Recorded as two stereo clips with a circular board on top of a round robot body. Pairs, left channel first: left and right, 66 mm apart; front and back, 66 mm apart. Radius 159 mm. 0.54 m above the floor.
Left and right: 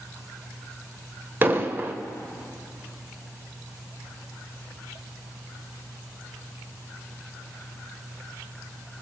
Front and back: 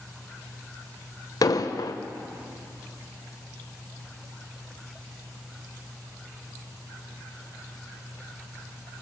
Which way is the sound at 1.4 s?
30° right.